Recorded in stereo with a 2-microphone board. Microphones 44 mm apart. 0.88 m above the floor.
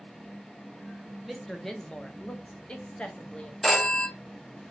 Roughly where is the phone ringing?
Centre.